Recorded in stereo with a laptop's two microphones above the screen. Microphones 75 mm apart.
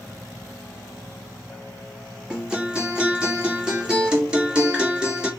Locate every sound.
2.3 s a guitar: 10° right (ahead or behind), 1.9 m